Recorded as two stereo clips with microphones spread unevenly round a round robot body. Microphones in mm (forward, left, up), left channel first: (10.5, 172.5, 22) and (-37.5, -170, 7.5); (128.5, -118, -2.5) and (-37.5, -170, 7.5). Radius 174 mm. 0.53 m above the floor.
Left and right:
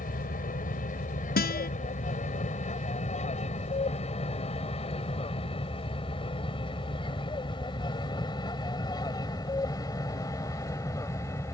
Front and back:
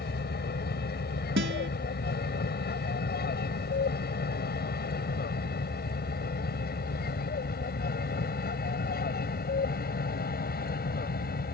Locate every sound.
0.0 s an aircraft: 15° left; by 11.5 s straight ahead
1.4 s a guitar: 145° left